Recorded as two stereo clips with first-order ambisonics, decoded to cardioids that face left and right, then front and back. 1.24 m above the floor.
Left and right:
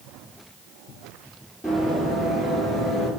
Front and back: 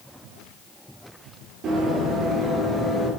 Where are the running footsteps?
175° left, 1.6 m; by 3.1 s 40° right, 1.2 m.